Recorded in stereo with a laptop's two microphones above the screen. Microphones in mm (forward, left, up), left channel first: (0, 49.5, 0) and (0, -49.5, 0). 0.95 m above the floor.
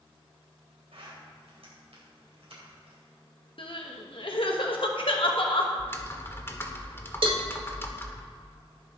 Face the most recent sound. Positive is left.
turn(degrees=-65)  # may be behind; listen again after turning